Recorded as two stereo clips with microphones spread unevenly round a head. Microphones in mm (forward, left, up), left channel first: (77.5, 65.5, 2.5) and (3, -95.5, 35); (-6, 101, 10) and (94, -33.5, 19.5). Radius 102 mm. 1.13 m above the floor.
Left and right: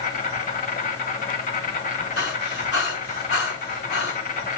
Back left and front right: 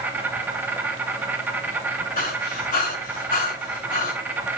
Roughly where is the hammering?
No hammering in this recording.